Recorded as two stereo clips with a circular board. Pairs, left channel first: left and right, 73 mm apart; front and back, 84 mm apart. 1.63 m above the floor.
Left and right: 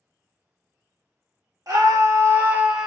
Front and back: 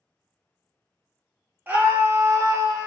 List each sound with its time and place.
1.7 s a scream: 115° right, 0.9 m; by 2.9 s 165° right, 0.6 m